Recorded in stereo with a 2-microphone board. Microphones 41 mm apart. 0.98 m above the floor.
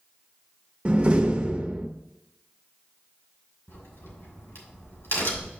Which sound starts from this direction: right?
A door slam, at 0.8 s.